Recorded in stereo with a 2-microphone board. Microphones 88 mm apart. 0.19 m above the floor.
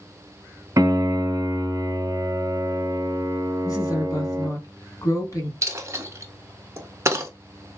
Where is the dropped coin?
35° right (ahead or behind), 0.6 m.